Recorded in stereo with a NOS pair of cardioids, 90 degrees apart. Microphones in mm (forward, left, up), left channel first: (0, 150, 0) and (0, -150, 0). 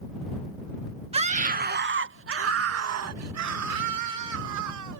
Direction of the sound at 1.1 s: 20° right.